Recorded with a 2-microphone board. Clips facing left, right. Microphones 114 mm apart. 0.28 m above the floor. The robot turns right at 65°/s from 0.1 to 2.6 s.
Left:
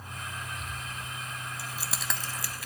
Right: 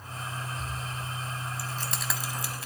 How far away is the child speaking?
No child speaking in this recording.